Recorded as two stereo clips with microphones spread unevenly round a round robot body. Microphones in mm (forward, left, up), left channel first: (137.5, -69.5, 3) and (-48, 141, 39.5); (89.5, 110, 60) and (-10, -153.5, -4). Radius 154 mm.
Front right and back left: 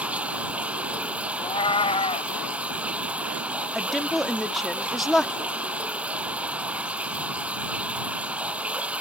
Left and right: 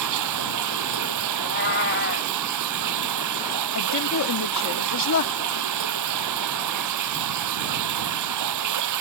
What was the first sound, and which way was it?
Running water, 145° right.